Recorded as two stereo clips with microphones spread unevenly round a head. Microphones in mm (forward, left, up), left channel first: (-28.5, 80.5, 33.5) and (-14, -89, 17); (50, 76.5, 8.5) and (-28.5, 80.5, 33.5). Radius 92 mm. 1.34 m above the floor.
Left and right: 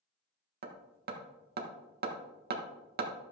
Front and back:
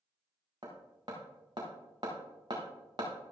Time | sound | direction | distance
0.6 | hammering | 115° right | 1.4 m